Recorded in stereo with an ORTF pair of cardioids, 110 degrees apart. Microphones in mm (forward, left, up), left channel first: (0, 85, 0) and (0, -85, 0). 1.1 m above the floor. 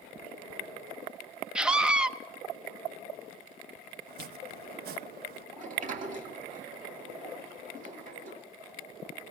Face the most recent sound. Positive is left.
turn(degrees=-50)